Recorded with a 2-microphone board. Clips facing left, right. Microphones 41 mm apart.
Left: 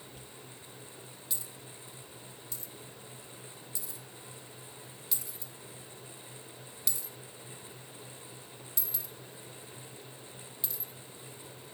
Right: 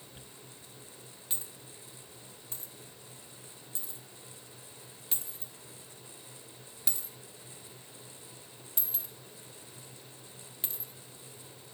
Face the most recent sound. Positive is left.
turn(degrees=-35)  # may be behind; listen again after turning